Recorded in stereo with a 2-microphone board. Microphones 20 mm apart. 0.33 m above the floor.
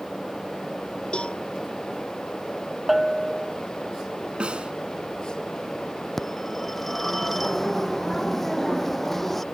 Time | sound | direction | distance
1.1 | a cowbell | 80° left | ?
2.9 | a bell | 5° right (ahead or behind) | ?
4.4 | a snare drum | 75° right (ahead or behind) | ?
6.2 | a phone ringing | 15° left (ahead or behind) | ?